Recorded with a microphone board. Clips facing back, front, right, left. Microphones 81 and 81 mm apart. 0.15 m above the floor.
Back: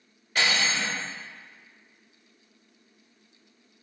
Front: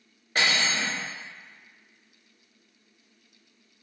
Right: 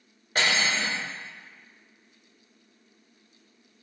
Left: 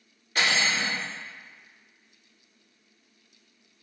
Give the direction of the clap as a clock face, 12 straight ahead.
I don't hear a clap.